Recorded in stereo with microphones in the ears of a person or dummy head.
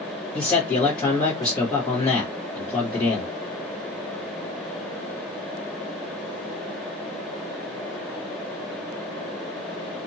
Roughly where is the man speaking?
Left.